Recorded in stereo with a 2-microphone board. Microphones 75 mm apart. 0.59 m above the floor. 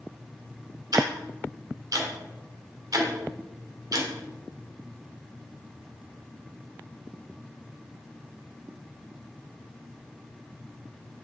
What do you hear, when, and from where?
0.9 s ticking: 55° right (ahead or behind), 1.3 m